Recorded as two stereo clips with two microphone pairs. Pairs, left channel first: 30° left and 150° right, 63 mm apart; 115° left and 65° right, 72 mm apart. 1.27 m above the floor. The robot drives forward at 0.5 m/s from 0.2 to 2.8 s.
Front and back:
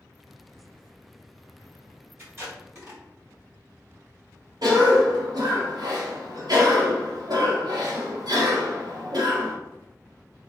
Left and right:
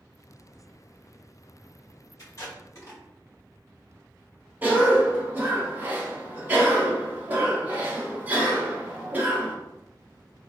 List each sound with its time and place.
2.2 s tape being pulled: 160° left, 1.4 m; by 3.0 s 165° left, 1.7 m
4.6 s a cough: 130° right, 0.9 m